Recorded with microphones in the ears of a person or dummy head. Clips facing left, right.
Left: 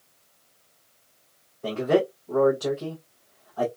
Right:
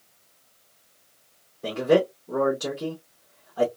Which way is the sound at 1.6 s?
20° right (ahead or behind).